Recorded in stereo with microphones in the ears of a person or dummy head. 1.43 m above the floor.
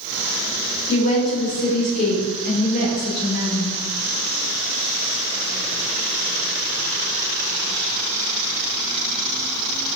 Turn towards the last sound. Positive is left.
turn(degrees=55)  # may be behind; listen again after turning